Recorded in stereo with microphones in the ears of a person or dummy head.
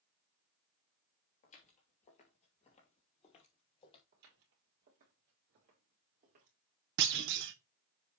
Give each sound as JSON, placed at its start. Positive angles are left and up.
{"t": 1.4, "sound": "footsteps", "side_deg": 45, "distance_m": 2.0}
{"t": 4.1, "sound": "footsteps", "side_deg": -55, "distance_m": 3.0}
{"t": 7.0, "sound": "a clunk", "side_deg": -60, "distance_m": 0.7}